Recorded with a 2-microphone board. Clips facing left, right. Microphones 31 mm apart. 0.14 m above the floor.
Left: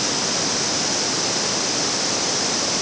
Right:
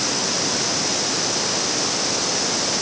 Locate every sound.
Only background noise.